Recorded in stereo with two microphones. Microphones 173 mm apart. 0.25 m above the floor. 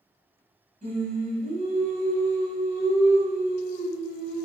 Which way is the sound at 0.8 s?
45° right (ahead or behind).